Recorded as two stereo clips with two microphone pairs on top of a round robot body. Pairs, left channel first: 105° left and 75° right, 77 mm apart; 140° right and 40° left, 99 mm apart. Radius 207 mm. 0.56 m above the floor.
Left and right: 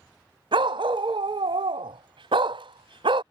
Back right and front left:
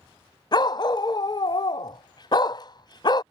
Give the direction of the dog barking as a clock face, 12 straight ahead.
3 o'clock.